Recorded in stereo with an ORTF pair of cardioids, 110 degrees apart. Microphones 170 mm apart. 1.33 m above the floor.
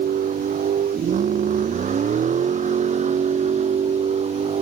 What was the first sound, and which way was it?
A vehicle, 50° right.